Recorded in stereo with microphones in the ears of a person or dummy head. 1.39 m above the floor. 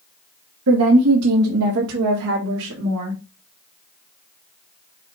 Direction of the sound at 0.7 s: 85° right.